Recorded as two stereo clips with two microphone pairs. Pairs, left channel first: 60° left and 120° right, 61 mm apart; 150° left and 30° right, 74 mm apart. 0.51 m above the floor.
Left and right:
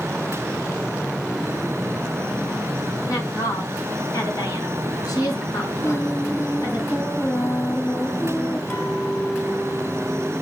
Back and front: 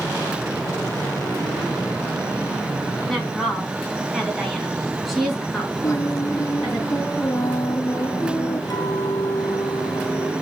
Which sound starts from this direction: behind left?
A clink, at 8.7 s.